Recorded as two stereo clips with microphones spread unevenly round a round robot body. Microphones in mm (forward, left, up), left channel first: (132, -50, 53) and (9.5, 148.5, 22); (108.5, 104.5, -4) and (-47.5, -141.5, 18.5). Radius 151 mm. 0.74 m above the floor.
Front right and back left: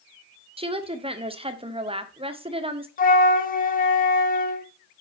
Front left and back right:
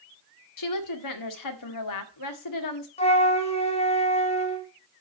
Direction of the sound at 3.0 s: 5° right.